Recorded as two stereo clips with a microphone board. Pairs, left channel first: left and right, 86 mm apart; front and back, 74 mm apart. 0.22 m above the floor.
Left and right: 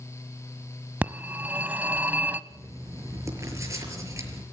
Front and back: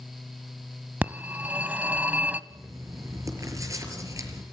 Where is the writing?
140° right, 5 m.